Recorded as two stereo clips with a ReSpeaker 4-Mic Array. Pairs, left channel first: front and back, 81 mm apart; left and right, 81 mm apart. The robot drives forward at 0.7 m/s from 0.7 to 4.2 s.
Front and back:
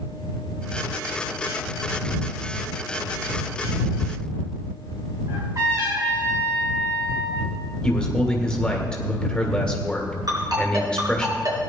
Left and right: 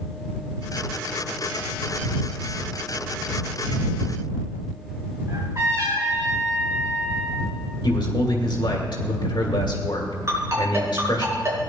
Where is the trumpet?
140° right, 4 m.